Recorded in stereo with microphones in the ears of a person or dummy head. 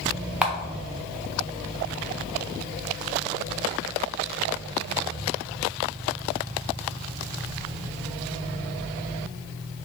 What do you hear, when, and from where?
0.4 s a camera shutter: 5° right (ahead or behind), 0.5 m